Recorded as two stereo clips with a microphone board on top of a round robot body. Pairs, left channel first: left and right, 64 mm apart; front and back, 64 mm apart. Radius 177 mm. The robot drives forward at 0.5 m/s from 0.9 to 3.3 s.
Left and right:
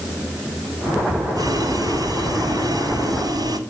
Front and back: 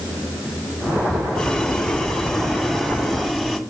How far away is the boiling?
About 5.5 m.